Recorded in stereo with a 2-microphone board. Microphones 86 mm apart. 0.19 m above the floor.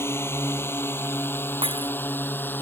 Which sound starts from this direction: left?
A drone, at 0.0 s.